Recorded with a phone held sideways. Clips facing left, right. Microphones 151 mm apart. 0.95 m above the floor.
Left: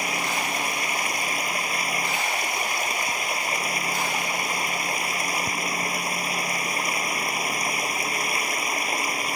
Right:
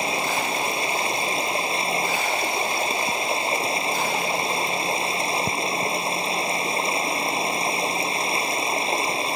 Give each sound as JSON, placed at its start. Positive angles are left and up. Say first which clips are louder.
{"t": 0.0, "sound": "running water", "louder": "right 3 dB", "side_deg": -25}